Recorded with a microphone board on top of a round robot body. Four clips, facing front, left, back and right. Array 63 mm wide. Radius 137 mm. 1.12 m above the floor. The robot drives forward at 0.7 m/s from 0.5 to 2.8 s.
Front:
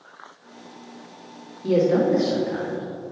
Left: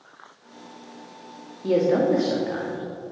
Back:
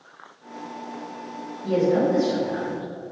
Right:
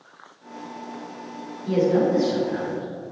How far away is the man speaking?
About 2 m.